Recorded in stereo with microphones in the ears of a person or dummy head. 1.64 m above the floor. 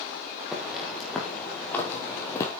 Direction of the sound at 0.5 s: 5° right (ahead or behind).